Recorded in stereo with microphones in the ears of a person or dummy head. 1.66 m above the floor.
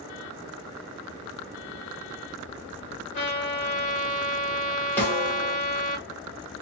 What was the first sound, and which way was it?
A trumpet, 35° left (ahead or behind).